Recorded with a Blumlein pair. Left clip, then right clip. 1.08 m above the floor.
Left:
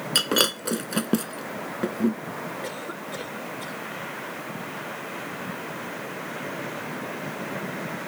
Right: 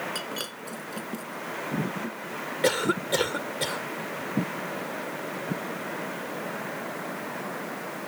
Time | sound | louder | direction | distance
0.1 | breaking glass | left 11 dB | 35° left | ?
2.6 | a cough | right 9 dB | 60° right | ?